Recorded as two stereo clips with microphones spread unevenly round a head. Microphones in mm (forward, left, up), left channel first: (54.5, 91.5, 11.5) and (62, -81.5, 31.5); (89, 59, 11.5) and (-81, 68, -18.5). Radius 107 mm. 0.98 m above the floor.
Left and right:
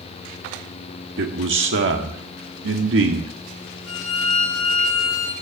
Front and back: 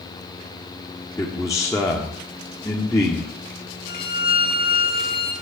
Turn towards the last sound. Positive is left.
turn(degrees=120)